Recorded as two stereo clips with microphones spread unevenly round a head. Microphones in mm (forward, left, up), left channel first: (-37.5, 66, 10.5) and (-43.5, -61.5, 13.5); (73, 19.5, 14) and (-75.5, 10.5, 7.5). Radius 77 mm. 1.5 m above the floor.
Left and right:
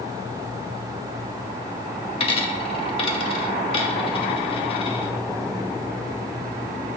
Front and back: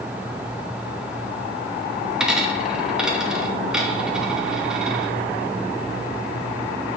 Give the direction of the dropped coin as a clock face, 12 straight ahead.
9 o'clock.